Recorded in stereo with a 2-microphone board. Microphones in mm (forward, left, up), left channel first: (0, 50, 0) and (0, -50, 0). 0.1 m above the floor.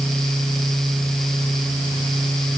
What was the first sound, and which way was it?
Only background noise.